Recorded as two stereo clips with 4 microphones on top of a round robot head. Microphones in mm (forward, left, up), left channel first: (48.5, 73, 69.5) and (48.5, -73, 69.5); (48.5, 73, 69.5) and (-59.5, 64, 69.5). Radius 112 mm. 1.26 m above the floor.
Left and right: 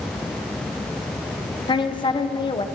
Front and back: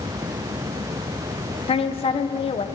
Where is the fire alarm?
No fire alarm in this recording.